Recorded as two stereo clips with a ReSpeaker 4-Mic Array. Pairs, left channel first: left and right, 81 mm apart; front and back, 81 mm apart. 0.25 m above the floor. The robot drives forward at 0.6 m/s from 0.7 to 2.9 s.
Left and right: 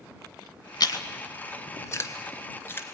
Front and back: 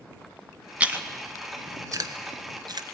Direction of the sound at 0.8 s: 110° left.